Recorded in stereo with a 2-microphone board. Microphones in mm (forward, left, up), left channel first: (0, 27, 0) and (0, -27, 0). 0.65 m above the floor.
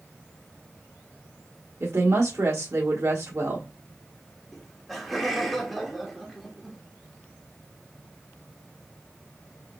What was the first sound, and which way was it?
A woman speaking, 60° right (ahead or behind).